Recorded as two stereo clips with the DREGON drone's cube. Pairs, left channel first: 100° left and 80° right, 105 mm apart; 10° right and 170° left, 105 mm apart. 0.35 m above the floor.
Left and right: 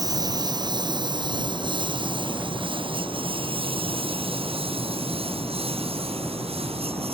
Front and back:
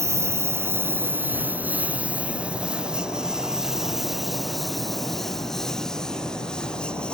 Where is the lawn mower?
130° right; by 7.2 s 90° right.